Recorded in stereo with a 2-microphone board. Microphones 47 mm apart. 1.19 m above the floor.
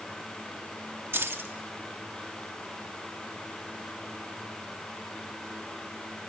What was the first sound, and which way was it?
Keys jangling, 55° right (ahead or behind).